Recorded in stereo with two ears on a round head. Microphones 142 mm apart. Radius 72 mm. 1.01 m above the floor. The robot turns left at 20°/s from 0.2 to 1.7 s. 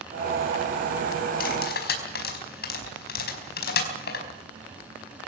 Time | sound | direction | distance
1.4 | cutlery clinking | 60° left (ahead or behind) | 4.5 m